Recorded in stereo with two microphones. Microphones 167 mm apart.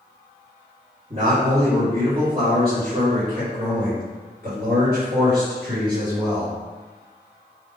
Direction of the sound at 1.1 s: 50° right (ahead or behind).